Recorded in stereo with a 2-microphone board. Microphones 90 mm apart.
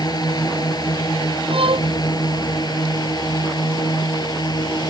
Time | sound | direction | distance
0.0 | a drone | 45° left (ahead or behind) | ?
1.5 | a violin | 80° right | ?